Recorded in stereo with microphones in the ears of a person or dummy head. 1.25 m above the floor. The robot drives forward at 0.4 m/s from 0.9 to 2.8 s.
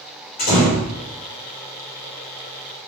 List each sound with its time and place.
0.4 s a door slam: 50° left (ahead or behind), 1.7 m